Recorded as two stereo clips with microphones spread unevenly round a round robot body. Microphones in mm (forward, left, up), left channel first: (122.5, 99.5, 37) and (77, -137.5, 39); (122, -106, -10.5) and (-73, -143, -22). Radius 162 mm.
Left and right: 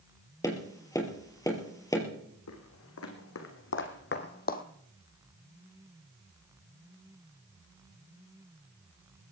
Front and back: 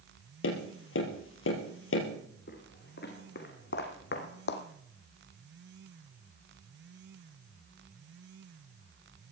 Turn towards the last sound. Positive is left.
turn(degrees=30)